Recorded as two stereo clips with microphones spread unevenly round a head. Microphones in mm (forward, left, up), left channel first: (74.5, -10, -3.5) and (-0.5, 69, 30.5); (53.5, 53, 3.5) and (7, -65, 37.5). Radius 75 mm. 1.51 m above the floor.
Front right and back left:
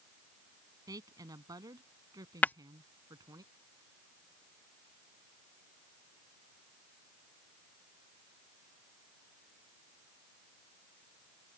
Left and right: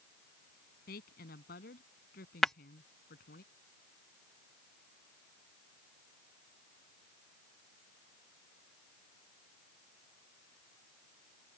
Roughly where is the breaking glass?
Behind right.